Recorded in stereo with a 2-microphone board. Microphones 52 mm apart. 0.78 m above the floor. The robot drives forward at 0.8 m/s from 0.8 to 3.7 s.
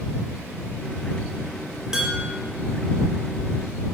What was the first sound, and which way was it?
Dishes clattering, 15° right (ahead or behind).